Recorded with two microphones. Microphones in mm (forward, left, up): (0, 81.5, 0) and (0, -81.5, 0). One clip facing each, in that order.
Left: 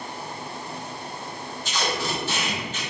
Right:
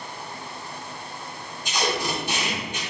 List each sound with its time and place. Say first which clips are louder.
1.6 s tape being pulled: right 2 dB; 15° right (ahead or behind), 2.5 m